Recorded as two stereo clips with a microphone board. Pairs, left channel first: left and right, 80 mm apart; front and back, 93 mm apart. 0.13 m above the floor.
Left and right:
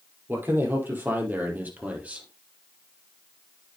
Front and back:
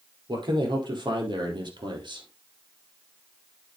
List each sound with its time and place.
0.3 s a man speaking: 150° right, 5 m; by 2.3 s 160° right, 3.5 m